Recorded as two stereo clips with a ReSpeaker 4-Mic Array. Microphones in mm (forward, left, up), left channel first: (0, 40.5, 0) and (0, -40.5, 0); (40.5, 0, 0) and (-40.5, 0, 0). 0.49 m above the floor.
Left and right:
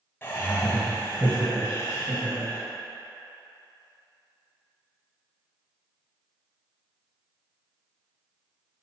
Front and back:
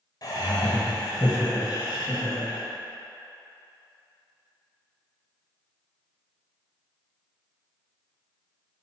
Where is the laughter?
30° left, 2 m.